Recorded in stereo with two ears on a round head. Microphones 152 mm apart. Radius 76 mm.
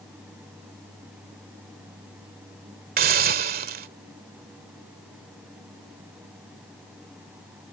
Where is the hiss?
55° right (ahead or behind).